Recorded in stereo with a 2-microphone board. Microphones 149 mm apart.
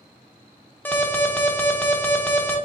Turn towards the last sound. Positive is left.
turn(degrees=10)  # may be behind; listen again after turning